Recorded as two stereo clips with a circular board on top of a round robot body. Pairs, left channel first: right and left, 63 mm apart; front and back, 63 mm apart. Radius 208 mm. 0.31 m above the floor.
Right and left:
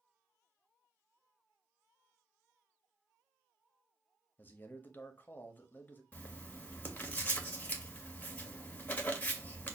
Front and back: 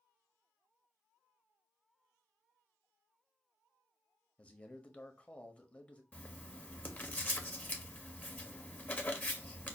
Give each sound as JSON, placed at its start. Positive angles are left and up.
{"t": 4.4, "sound": "a man speaking", "azimuth_deg": -55, "distance_m": 1.1}
{"t": 6.1, "sound": "writing", "azimuth_deg": -45, "distance_m": 1.2}